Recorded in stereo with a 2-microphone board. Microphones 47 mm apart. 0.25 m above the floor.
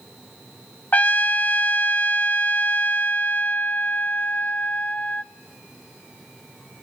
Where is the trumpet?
40° left (ahead or behind), 1.0 m.